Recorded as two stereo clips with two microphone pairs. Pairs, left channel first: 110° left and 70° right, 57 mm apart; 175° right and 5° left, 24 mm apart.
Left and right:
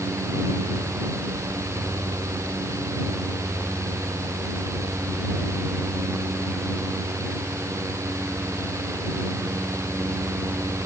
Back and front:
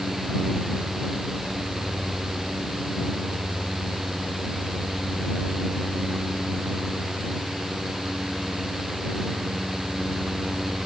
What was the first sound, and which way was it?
Only background noise.